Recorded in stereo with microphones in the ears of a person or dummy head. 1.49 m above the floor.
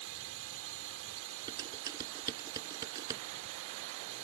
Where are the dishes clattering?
20° right (ahead or behind).